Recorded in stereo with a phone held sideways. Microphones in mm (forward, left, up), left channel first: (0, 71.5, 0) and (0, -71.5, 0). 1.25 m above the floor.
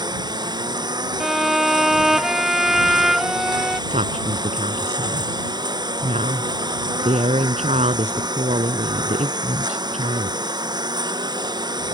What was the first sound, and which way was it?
A lawn mower, 30° right (ahead or behind).